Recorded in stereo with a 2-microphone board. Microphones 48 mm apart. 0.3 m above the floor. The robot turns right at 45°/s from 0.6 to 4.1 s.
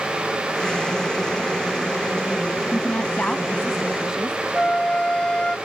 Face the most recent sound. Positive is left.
turn(degrees=20)  # may be behind; listen again after turning